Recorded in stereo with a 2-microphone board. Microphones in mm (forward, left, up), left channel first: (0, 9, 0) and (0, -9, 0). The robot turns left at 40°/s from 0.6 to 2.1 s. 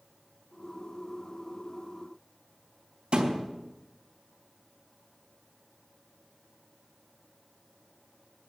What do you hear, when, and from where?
3.1 s a thud: 75° right (ahead or behind), 3 m